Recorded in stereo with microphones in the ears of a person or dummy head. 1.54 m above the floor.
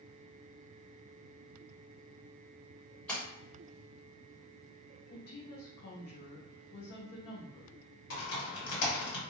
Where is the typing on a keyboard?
75° left (ahead or behind), 1.4 m.